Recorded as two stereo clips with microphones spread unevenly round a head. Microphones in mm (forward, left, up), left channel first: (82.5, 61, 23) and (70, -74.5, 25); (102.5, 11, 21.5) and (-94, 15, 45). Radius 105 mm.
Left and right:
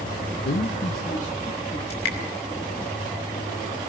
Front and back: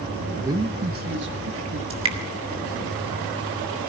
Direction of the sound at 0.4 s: 100° left.